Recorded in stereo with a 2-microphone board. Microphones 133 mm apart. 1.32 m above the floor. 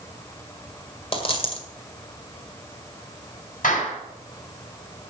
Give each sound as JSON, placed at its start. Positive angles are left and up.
{"t": 1.1, "sound": "a dropped coin", "side_deg": 45, "distance_m": 1.9}
{"t": 3.6, "sound": "a clap", "side_deg": 85, "distance_m": 8.0}